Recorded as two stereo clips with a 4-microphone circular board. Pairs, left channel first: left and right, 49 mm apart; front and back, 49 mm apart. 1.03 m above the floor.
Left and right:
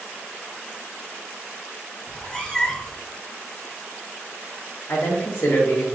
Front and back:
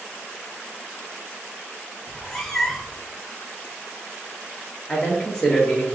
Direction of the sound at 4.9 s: 80° left.